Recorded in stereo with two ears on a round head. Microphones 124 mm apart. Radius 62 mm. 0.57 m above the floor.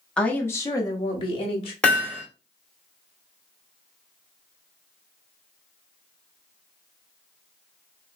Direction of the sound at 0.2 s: 5° left (ahead or behind).